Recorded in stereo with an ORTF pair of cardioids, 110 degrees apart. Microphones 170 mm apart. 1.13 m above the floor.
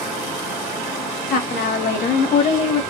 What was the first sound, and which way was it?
A woman speaking, 60° left.